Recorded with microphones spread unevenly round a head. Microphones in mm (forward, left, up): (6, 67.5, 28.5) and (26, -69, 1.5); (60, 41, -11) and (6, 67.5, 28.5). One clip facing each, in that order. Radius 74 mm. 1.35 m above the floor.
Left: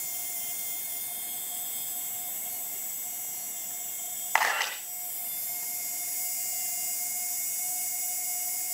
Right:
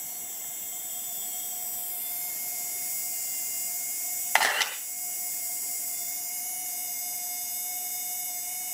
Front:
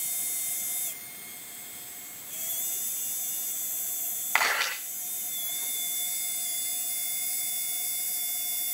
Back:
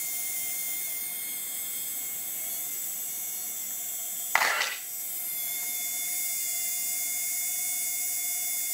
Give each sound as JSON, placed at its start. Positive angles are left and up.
{"t": 4.3, "sound": "a camera shutter", "azimuth_deg": -145, "distance_m": 3.0}